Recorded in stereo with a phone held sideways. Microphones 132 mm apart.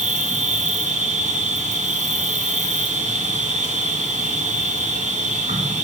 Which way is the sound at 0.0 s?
65° right (ahead or behind).